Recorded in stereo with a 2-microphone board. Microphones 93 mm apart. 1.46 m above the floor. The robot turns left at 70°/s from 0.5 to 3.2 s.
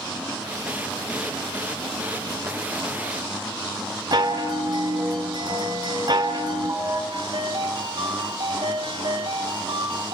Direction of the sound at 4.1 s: 50° right (ahead or behind).